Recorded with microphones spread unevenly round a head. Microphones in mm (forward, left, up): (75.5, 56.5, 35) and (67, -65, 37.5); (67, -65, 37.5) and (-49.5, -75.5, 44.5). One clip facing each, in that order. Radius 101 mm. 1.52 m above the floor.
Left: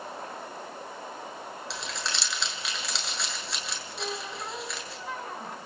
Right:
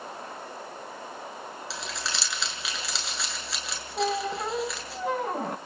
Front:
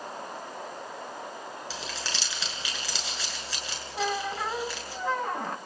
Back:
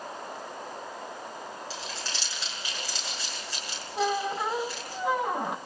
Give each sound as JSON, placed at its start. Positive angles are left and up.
{"t": 1.7, "sound": "crumpling", "azimuth_deg": -5, "distance_m": 7.0}
{"t": 4.0, "sound": "a squeak", "azimuth_deg": -105, "distance_m": 1.1}